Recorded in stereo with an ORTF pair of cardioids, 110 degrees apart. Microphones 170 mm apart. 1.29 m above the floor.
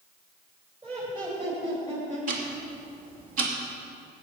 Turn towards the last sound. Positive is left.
turn(degrees=-55)